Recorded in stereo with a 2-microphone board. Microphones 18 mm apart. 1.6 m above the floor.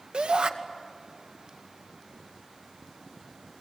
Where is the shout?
85° right, 2 m.